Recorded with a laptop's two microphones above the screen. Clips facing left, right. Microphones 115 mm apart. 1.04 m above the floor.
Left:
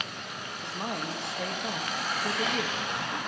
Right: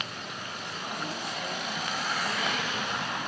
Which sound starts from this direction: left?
A man speaking, at 0.6 s.